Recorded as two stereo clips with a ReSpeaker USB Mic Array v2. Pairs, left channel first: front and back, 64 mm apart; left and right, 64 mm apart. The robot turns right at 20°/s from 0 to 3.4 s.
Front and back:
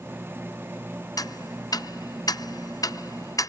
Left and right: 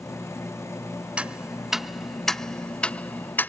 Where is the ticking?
15° right; by 3.5 s 25° left.